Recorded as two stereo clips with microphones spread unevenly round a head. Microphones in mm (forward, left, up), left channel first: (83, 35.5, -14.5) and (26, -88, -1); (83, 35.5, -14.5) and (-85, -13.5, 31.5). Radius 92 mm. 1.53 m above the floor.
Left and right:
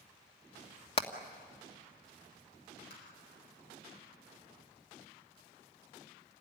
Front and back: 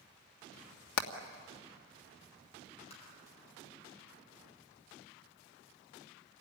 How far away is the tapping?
About 8.5 m.